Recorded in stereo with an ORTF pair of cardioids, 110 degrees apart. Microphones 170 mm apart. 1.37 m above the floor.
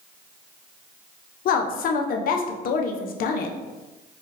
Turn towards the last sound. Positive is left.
turn(degrees=60)